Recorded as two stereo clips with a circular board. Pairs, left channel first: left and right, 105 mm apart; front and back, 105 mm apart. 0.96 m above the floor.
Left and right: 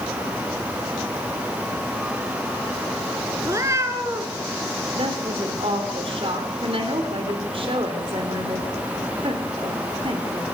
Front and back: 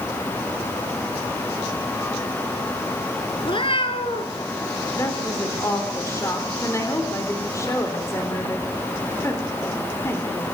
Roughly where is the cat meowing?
Ahead right.